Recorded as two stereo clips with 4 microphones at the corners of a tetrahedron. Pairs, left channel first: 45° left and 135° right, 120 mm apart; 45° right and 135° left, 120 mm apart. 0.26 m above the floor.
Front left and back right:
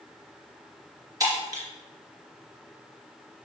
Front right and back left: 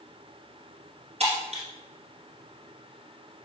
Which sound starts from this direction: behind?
Breaking glass, at 1.2 s.